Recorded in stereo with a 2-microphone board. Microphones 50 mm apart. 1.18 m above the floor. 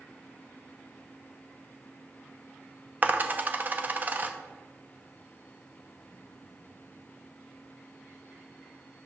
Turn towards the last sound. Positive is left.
turn(degrees=-35)  # may be behind; listen again after turning